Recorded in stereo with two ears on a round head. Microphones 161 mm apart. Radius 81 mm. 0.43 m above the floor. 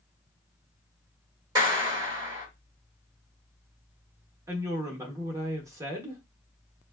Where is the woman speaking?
15° right (ahead or behind), 0.8 m.